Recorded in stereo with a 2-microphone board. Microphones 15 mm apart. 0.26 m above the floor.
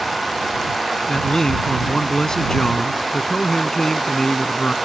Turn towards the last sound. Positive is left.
turn(degrees=50)  # may be behind; listen again after turning